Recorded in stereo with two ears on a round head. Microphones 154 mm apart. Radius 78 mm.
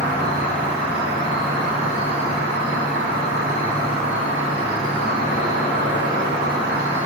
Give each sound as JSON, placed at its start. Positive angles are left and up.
{"t": 0.0, "sound": "an insect", "side_deg": -55, "distance_m": 3.5}